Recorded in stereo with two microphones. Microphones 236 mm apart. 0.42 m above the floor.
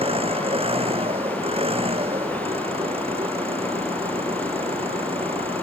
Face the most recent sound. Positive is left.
turn(degrees=-25)  # may be behind; listen again after turning